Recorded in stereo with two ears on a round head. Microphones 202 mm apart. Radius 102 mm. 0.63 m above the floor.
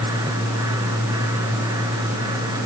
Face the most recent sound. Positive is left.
No sound to turn to.